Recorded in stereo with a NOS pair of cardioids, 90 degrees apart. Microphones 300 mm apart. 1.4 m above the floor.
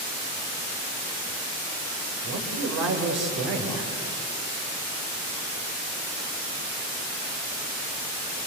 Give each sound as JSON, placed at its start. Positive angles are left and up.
{"t": 2.2, "sound": "a man speaking", "azimuth_deg": -60, "distance_m": 6.5}